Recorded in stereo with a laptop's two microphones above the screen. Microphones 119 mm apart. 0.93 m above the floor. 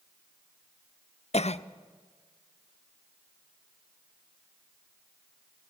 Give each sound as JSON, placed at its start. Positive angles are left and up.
{"t": 1.3, "sound": "a cough", "side_deg": 65, "distance_m": 0.5}